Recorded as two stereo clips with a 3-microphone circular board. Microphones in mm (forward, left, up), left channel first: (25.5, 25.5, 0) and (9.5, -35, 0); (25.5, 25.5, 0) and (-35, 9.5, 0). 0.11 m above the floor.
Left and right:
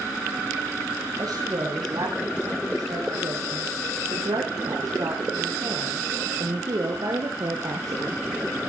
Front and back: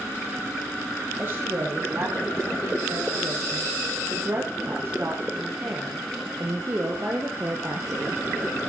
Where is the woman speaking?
115° right, 8.5 m; by 8.6 s 120° right, 2.5 m.